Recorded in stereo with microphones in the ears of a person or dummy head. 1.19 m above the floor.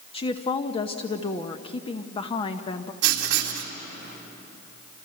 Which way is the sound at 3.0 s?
60° right (ahead or behind).